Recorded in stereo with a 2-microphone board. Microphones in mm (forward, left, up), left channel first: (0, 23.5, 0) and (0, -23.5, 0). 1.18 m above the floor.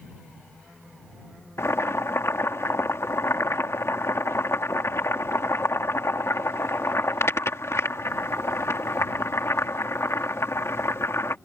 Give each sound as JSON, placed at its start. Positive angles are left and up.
{"t": 1.6, "sound": "boiling", "side_deg": 75}